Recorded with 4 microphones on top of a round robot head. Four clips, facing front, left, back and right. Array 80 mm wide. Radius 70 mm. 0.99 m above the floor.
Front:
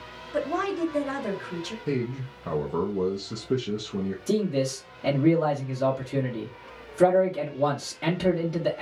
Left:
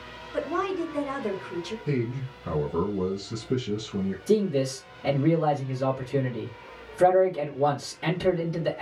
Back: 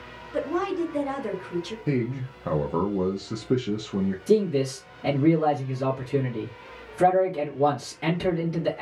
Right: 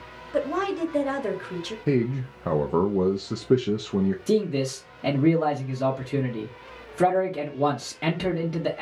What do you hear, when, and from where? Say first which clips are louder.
0.3 s a woman speaking: right 2 dB, back 1 dB; 80° right, 1.5 m
1.9 s a man speaking: right 7 dB, back 1 dB; 105° right, 0.6 m
4.3 s a man speaking: left 4 dB, back 4 dB; 80° right, 1.3 m